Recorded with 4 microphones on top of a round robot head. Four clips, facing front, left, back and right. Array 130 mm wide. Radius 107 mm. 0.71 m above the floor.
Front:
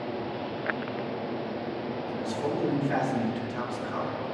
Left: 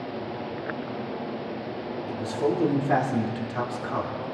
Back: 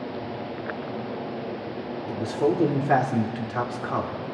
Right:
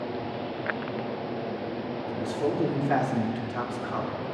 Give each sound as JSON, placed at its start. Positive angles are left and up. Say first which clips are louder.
{"t": 2.1, "sound": "a man speaking", "louder": "left 3 dB, back 8 dB", "azimuth_deg": 170, "distance_m": 3.0}